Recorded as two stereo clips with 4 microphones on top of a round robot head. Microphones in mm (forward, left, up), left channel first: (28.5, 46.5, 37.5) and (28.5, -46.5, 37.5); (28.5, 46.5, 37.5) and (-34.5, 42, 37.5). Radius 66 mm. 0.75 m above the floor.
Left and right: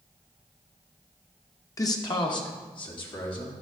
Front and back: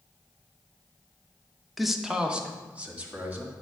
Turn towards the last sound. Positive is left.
turn(degrees=120)